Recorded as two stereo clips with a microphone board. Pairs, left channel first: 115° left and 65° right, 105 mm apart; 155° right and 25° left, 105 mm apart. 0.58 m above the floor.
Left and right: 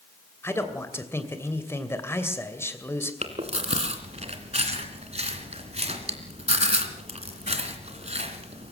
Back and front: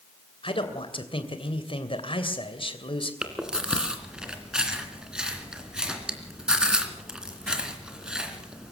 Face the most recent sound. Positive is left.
turn(degrees=-60)